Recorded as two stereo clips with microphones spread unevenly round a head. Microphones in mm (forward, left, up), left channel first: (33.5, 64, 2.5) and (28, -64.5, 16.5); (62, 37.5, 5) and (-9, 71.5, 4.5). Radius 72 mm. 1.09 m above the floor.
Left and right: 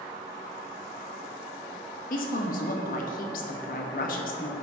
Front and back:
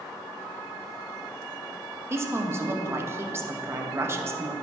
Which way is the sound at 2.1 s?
100° left.